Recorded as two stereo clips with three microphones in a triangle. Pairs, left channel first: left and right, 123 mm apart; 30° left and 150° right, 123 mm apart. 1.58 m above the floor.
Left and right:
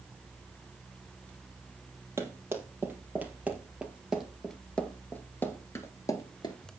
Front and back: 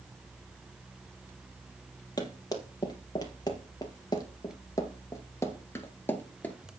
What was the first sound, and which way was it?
Running footsteps, 25° right.